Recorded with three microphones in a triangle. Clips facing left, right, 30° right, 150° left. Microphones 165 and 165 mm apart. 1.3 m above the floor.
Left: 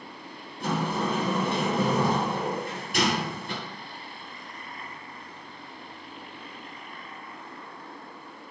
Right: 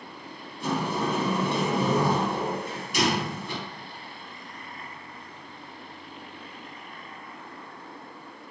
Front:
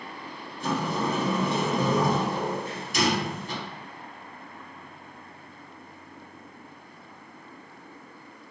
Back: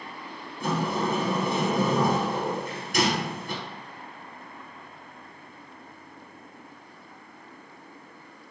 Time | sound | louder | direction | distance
0.6 | a sliding door | even, back 1 dB | 120° left | 0.9 m